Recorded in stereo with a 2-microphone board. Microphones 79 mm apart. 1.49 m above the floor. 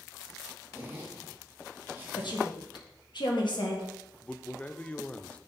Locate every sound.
0.7 s a zipper: 25° right (ahead or behind), 1.6 m
2.2 s a woman speaking: 70° left (ahead or behind), 1.6 m
4.2 s a man speaking: 20° left (ahead or behind), 0.5 m